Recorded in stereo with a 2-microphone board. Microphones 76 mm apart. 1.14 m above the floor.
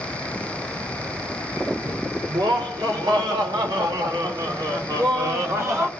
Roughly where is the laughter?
Right.